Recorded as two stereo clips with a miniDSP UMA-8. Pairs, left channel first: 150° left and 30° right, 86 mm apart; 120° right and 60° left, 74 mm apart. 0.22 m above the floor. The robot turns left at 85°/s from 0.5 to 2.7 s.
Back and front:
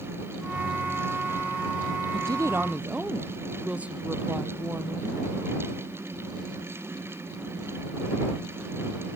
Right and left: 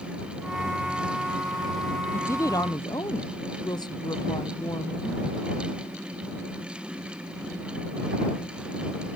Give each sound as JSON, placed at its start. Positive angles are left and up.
{"t": 2.1, "sound": "a woman speaking", "azimuth_deg": -55}